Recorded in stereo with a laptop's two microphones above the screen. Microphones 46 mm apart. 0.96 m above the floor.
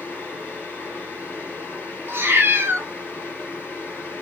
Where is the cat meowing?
55° right (ahead or behind), 0.7 m.